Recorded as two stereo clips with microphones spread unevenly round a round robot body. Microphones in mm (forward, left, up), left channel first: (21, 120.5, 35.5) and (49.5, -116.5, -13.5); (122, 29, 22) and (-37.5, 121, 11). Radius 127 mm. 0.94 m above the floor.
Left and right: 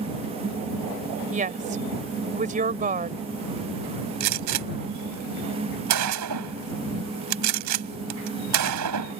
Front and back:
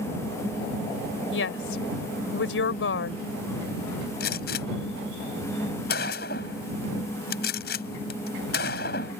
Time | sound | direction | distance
1.3 | a woman speaking | 25° right | ?
4.2 | a gunshot | 85° right | ?